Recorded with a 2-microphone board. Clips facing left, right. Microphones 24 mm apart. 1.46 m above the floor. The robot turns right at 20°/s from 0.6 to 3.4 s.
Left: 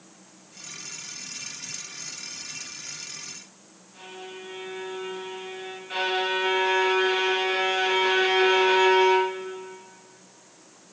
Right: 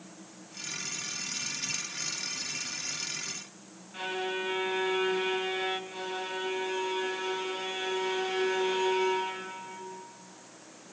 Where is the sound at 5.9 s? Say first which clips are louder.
Left 10 dB; 55° left (ahead or behind), 1.1 m.